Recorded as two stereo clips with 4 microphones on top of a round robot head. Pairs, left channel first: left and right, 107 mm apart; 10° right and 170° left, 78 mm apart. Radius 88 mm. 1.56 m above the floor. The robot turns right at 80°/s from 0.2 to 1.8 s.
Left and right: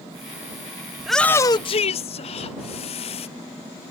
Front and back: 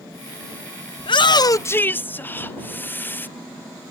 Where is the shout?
10° right; by 3.3 s 55° left.